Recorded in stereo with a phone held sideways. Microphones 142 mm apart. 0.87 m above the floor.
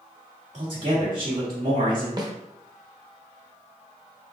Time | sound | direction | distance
0.5 | a man speaking | 55° right (ahead or behind) | 1.9 m
2.2 | a snare drum | 30° right (ahead or behind) | 0.7 m